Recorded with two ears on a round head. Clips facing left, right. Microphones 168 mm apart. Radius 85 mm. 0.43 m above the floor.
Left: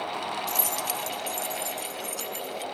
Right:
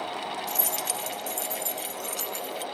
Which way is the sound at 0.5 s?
Centre (ahead or behind).